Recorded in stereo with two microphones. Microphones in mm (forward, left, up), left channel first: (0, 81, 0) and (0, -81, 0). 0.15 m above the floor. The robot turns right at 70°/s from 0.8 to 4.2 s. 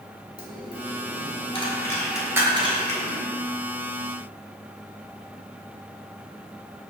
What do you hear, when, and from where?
0.4 s a dropped coin: 65° left (ahead or behind), 1.1 m; by 3.2 s 60° right (ahead or behind), 1.1 m